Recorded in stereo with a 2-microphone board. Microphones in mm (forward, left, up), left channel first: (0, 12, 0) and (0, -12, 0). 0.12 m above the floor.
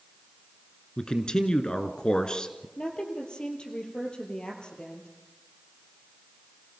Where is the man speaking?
35° left (ahead or behind), 1.5 m.